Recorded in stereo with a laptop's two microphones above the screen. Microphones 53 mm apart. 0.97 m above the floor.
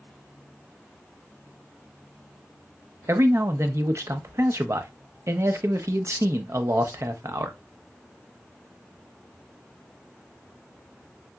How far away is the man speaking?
About 0.6 m.